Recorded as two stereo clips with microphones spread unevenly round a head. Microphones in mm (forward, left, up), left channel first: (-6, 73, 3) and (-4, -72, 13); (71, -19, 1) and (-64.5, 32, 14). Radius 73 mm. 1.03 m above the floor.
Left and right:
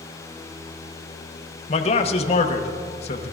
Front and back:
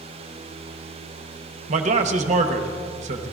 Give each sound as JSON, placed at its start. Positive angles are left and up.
{"t": 1.7, "sound": "a man speaking", "azimuth_deg": 125, "distance_m": 1.0}